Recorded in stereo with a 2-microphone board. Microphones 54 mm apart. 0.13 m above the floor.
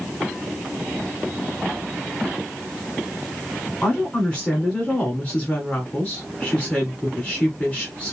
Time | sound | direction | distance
3.8 | a woman speaking | 20° left (ahead or behind) | 1.6 m